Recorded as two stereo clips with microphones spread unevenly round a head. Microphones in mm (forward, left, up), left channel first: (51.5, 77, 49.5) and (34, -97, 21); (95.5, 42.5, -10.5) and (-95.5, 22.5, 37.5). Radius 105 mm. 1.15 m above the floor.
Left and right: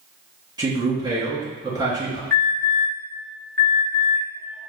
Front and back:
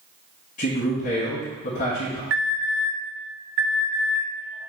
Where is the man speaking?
35° right, 1.6 m.